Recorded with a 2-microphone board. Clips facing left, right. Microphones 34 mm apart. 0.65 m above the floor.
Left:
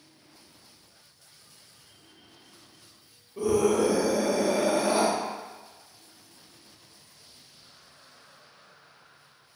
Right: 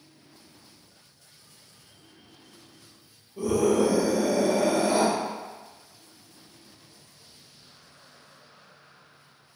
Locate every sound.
3.4 s a scream: 60° left (ahead or behind), 1.6 m; by 5.1 s 20° left (ahead or behind), 1.0 m